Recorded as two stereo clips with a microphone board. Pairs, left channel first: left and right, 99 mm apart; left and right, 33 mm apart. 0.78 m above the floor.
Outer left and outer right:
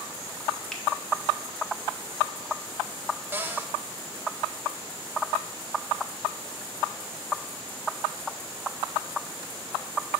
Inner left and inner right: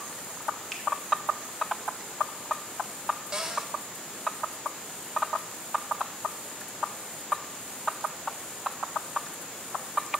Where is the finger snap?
10° left (ahead or behind), 1.0 m.